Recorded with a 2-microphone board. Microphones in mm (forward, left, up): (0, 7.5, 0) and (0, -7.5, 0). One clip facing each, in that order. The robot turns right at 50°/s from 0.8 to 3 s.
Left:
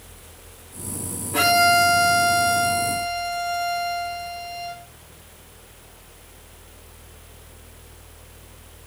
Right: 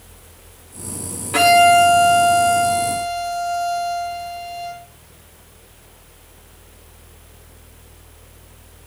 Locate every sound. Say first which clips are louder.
1.3 s a violin: right 6 dB; 135° right, 3 m; by 4.8 s 50° right, 3 m